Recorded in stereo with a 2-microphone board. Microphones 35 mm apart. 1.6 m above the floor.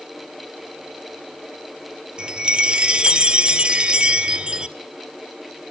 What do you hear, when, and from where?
2.2 s a chime: 30° right (ahead or behind), 1.5 m